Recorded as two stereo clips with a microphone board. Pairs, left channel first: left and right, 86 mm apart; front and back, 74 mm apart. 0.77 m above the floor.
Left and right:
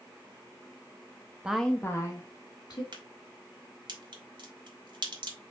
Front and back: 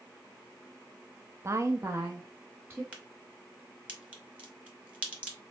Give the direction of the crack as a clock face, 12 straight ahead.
4 o'clock.